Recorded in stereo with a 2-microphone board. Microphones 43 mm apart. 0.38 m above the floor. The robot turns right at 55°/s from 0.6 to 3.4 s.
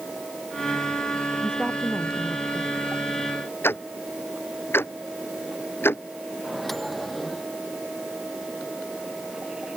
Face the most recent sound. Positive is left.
turn(degrees=0)  # may be behind; listen again after turning